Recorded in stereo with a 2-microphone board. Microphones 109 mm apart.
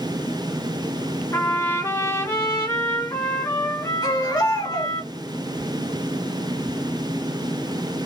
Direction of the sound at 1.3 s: 25° left (ahead or behind).